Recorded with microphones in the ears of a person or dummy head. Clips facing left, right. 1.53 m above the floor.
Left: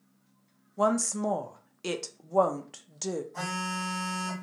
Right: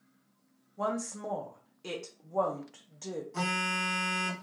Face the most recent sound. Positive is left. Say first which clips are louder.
# right 1 dB
turn(degrees=-55)  # may be behind; listen again after turning